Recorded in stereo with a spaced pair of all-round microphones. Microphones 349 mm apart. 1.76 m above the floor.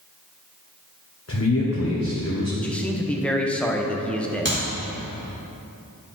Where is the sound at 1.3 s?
45° left (ahead or behind), 1.1 m.